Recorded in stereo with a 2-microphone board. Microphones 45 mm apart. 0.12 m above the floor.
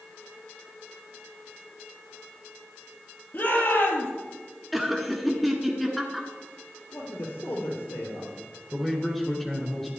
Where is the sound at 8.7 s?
5° right (ahead or behind), 1.6 m.